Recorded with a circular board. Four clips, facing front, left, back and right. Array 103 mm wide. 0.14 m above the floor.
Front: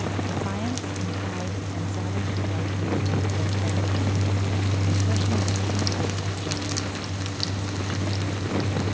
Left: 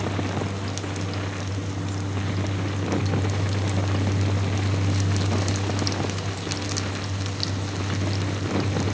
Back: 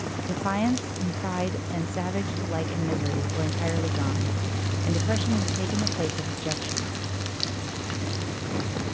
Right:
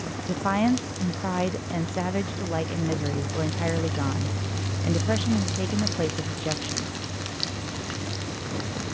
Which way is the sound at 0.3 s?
115° right.